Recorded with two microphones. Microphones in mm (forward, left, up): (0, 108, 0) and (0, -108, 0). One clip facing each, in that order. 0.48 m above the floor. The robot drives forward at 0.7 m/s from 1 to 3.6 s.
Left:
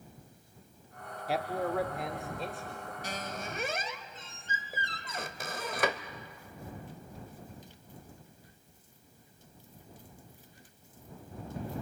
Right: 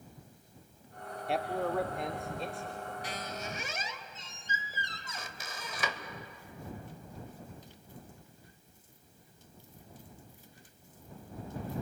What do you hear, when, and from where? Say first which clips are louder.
1.3 s a man speaking: even; centre (ahead or behind), 0.7 m
3.0 s a squeak: left 1 dB; 45° left (ahead or behind), 1.2 m; by 6.0 s 60° left (ahead or behind), 1.0 m